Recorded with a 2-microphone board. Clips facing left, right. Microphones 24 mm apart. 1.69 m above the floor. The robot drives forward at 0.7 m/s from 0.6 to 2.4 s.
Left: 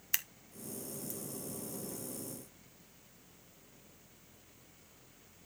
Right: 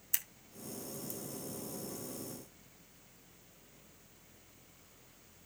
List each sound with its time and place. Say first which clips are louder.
0.1 s scissors: left 4 dB; 30° left (ahead or behind), 1.2 m